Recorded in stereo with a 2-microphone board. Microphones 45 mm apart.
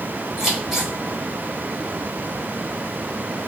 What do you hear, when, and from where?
0.4 s scissors: 15° right (ahead or behind), 2 m